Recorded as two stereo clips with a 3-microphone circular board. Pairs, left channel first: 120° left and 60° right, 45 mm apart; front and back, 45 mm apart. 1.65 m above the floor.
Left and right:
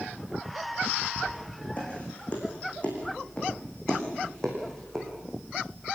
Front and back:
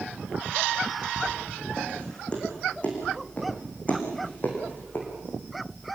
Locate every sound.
1.2 s footsteps: 70° left, 7.5 m; by 5.1 s 40° left, 6 m